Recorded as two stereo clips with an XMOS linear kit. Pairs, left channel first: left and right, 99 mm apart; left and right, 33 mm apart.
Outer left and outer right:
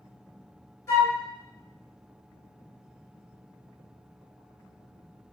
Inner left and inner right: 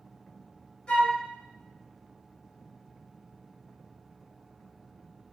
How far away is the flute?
About 1.8 m.